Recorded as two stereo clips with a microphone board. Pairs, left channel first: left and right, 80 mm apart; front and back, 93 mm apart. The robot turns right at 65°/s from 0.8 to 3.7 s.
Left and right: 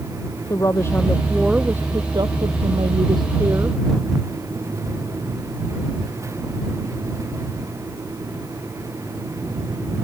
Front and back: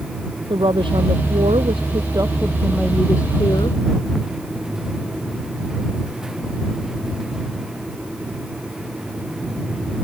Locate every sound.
0.5 s a woman speaking: 145° left; by 3.8 s 25° right